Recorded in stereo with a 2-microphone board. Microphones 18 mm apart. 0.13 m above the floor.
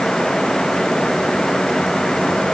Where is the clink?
No clink in this recording.